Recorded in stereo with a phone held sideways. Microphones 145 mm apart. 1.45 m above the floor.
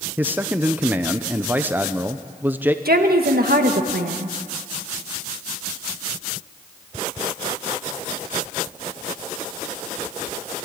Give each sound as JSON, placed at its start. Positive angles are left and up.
{"t": 0.2, "sound": "a man speaking", "side_deg": -10, "distance_m": 0.7}
{"t": 2.9, "sound": "a woman speaking", "side_deg": -80, "distance_m": 1.8}